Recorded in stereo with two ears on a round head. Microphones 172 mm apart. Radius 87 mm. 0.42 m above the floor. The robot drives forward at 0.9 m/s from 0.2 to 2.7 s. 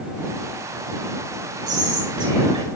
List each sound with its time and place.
1.7 s whispering: 20° right (ahead or behind), 3 m; by 2.7 s 30° right (ahead or behind), 2 m